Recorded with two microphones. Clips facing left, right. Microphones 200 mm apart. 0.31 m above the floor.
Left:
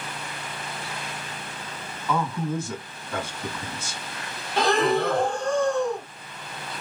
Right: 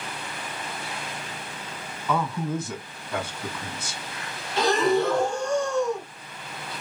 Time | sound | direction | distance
2.1 | a man speaking | 10° right (ahead or behind) | 1.8 m
4.6 | breathing | 60° left (ahead or behind) | 0.8 m